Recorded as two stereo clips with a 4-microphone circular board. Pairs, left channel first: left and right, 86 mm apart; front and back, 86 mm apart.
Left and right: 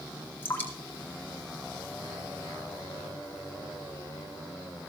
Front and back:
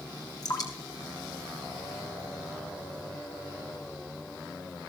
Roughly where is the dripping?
Ahead left.